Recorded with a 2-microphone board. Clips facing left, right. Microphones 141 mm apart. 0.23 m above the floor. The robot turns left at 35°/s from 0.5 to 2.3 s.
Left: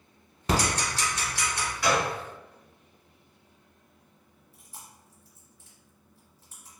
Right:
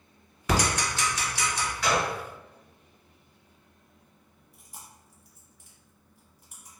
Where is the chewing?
15° right (ahead or behind), 1.2 m.